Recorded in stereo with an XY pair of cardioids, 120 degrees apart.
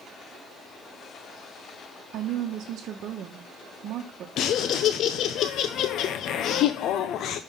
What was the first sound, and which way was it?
A woman speaking, 65° right.